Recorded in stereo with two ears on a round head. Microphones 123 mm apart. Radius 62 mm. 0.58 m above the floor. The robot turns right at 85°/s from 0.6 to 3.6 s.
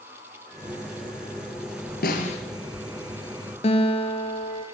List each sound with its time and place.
2.0 s a snare drum: 75° left (ahead or behind), 8 m; by 2.4 s 45° left (ahead or behind), 8 m
3.6 s a guitar: 45° left (ahead or behind), 2.5 m